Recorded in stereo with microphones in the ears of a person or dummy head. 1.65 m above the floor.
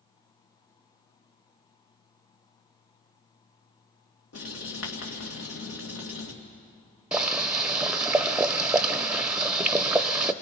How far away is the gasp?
I don't hear a gasp.